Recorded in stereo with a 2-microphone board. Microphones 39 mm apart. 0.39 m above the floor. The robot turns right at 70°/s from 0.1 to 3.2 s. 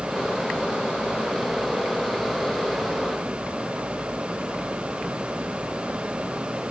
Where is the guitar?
I don't hear a guitar.